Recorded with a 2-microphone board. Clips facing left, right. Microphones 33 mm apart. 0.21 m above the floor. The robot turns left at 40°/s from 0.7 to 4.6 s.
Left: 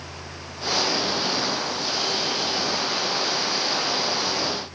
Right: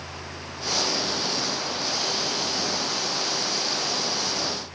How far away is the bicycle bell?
I don't hear a bicycle bell.